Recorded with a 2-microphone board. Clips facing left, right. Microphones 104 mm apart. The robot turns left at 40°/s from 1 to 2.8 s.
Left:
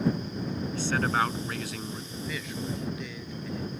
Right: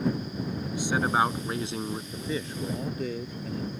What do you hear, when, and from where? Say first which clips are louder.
0.7 s a man speaking: right 2 dB; 30° right; by 2.0 s 70° right
2.1 s a man speaking: right 3 dB; 25° right (ahead or behind); by 3.7 s 45° right (ahead or behind)